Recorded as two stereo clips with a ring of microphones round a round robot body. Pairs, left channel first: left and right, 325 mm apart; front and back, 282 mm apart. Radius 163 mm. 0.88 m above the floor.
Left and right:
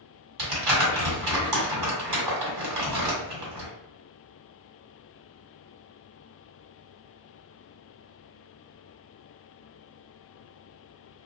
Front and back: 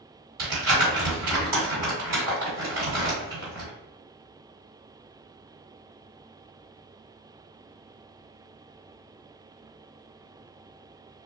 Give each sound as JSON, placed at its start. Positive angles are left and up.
{"t": 0.4, "sound": "crumpling", "azimuth_deg": -115, "distance_m": 1.6}